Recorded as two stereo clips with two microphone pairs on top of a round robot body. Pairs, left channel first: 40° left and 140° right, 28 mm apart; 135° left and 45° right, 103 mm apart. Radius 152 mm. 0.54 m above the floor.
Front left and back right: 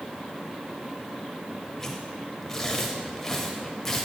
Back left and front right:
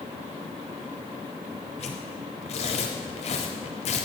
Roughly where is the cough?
I don't hear a cough.